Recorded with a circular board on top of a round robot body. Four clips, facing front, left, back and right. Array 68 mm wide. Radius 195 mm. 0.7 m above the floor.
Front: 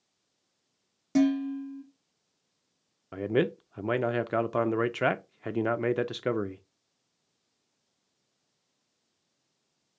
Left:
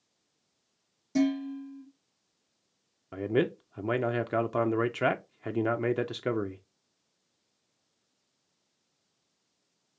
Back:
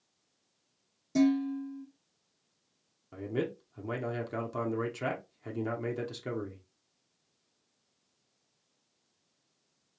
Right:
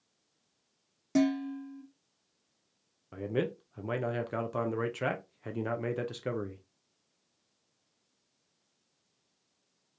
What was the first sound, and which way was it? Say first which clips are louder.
Dishes clattering: left 1 dB, front 2 dB; 40° right.